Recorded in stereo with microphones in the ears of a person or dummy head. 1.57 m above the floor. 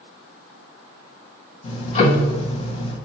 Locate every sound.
1.6 s ticking: 40° left (ahead or behind), 1.1 m